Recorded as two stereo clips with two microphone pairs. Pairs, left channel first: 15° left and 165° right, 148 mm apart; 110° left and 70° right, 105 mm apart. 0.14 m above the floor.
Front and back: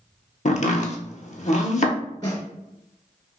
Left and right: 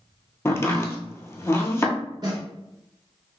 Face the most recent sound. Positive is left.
turn(degrees=-45)